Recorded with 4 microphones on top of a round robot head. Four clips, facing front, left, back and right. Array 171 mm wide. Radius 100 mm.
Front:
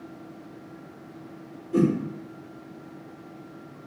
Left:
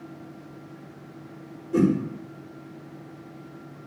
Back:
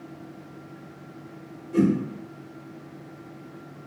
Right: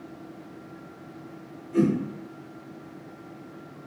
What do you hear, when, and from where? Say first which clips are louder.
1.7 s a whoosh: left 1 dB, even; 65° left, 1.0 m